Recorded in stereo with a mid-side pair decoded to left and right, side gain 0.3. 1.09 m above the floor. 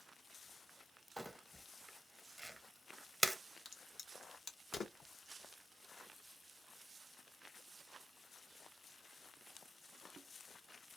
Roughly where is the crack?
Ahead left.